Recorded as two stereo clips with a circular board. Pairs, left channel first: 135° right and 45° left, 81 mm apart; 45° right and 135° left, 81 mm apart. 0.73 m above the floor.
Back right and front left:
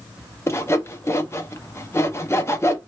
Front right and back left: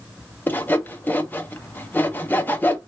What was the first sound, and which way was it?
Sawing, 100° right.